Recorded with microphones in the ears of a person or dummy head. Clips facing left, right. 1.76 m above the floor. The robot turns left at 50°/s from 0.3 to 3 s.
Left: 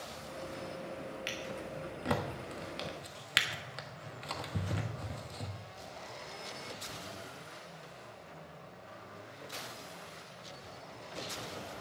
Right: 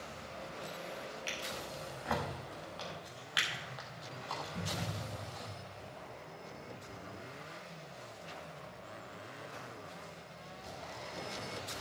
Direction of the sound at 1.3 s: 15° left (ahead or behind).